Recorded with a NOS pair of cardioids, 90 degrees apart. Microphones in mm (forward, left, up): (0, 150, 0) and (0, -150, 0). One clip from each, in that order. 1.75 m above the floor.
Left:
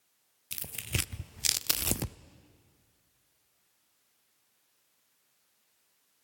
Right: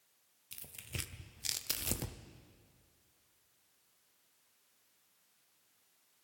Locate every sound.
0.5 s tearing paper: 45° left, 0.6 m